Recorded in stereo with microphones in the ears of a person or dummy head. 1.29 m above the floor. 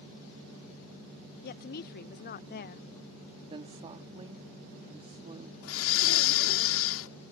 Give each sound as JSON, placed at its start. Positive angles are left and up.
{"t": 1.4, "sound": "a woman speaking", "side_deg": 45}
{"t": 3.5, "sound": "a woman speaking", "side_deg": -25}
{"t": 5.6, "sound": "breathing", "side_deg": 70}